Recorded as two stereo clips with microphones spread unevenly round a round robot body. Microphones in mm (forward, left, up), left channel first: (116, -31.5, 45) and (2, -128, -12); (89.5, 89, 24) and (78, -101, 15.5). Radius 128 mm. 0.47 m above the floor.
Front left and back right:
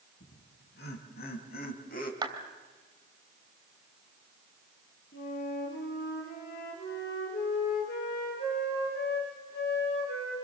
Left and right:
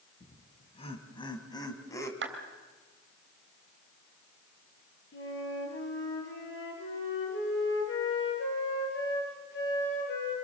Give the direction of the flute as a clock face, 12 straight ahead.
10 o'clock.